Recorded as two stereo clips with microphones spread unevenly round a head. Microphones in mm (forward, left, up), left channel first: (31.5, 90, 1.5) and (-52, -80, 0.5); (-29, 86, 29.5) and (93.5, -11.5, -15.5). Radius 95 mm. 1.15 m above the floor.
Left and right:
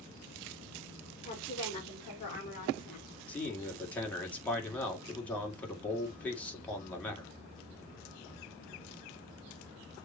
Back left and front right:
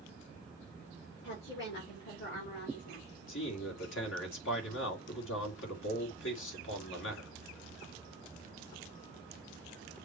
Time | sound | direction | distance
1.2 | a woman speaking | 130° left | 4.5 m
3.3 | a man speaking | 145° left | 2.5 m